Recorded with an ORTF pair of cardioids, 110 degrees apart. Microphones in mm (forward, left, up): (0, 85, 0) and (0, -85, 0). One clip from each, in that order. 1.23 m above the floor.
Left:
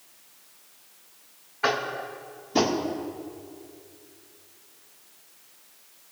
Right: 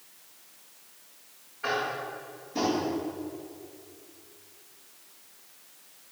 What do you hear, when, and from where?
1.6 s tapping: 65° left, 2 m